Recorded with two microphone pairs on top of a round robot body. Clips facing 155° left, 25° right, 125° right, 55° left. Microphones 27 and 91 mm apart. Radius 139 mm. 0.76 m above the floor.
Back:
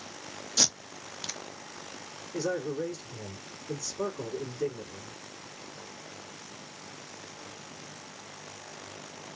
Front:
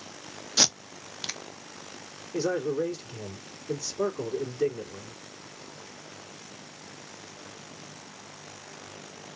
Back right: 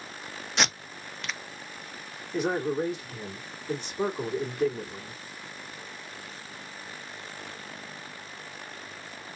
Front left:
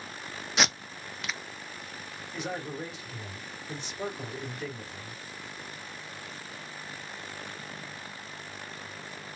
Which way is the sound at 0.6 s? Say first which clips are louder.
Front 3 dB, even; 15° right.